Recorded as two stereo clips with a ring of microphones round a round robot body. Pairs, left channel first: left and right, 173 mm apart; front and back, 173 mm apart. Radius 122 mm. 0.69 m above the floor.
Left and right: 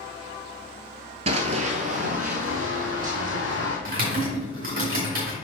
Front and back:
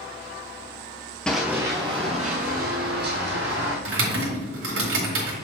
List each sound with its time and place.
1.3 s running footsteps: 85° right, 0.7 m; by 3.8 s 145° right, 1.9 m
3.9 s typing on a keyboard: 150° right, 1.8 m